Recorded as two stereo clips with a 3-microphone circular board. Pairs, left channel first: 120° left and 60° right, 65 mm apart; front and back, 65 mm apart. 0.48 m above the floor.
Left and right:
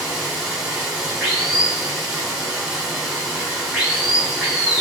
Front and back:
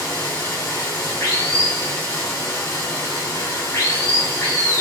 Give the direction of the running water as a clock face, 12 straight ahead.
11 o'clock.